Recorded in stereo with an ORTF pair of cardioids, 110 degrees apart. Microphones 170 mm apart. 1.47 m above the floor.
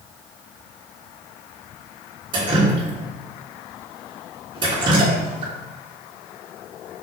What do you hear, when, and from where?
2.3 s dripping: 30° right, 2.5 m